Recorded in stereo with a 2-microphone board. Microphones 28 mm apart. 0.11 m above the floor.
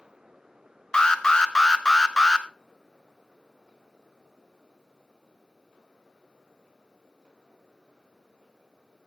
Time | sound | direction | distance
0.9 | an alarm | 25° left (ahead or behind) | 0.8 m